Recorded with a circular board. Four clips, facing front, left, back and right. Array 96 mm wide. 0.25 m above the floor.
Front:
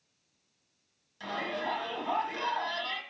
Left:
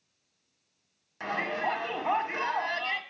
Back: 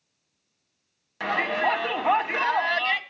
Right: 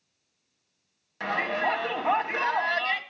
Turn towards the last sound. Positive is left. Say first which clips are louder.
# right 3 dB, back 10 dB
turn(degrees=-165)